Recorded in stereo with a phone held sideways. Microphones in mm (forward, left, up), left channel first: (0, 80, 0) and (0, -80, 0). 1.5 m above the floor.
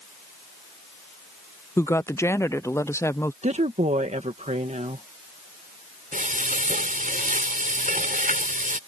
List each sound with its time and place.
1.8 s a woman speaking: 15° left (ahead or behind)
3.4 s a woman speaking: 45° right (ahead or behind)
6.1 s frying: 60° right (ahead or behind)